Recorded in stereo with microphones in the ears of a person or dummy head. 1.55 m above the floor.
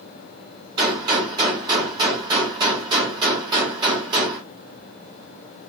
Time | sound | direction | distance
0.8 | a gunshot | 25° right (ahead or behind) | 1.5 m